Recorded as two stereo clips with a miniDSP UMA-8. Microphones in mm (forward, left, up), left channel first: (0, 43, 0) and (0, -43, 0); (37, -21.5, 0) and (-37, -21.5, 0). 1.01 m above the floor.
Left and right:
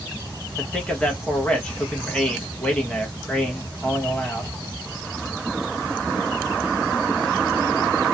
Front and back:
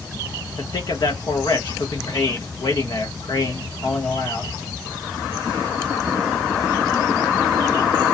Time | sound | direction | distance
0.6 | a man speaking | 10° left | 1.0 m